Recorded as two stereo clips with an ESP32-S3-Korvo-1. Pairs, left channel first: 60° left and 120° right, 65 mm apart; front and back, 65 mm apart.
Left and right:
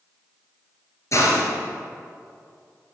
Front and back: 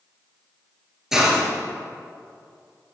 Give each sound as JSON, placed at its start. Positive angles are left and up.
{"t": 1.1, "sound": "a hiss", "azimuth_deg": 100, "distance_m": 2.0}